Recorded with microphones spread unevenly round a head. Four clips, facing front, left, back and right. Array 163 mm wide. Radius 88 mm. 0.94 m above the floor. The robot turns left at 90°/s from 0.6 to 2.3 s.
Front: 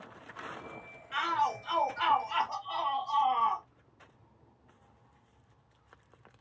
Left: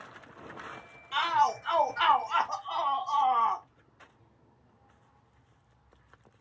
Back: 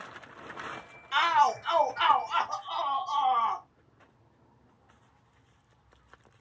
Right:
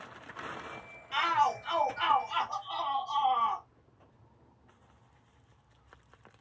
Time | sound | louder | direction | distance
1.1 | a shout | left 2 dB, back 6 dB | 170° right | 0.6 m